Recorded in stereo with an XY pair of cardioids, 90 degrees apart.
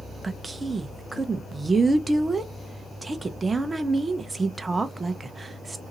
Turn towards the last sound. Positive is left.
turn(degrees=-25)